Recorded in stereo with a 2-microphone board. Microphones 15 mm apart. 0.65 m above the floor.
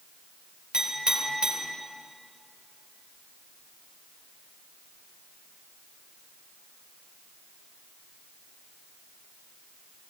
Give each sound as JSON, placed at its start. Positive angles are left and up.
{"t": 0.7, "sound": "a clink", "side_deg": -70, "distance_m": 1.7}